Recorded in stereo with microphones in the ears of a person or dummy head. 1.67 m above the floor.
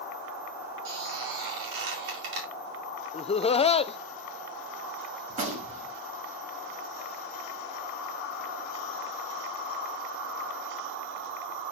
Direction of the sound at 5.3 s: 45° right (ahead or behind).